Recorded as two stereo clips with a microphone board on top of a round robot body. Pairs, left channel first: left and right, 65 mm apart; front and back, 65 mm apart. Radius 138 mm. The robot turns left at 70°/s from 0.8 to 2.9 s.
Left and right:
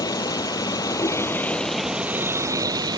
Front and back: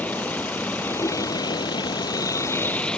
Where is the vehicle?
70° left; by 3.0 s 80° right.